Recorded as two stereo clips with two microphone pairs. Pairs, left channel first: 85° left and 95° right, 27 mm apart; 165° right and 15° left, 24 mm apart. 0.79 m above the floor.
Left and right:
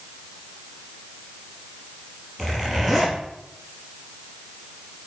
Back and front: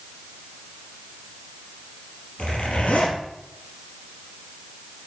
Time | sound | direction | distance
2.4 | a zipper | straight behind | 4.5 m